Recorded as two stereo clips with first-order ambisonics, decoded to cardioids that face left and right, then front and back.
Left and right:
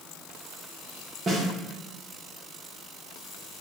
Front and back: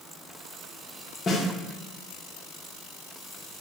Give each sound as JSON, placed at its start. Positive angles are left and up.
{"t": 1.3, "sound": "a snare drum", "azimuth_deg": -50, "distance_m": 0.8}